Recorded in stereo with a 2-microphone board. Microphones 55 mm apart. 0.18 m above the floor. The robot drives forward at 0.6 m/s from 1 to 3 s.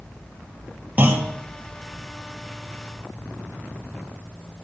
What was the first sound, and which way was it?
A clunk, 25° right (ahead or behind).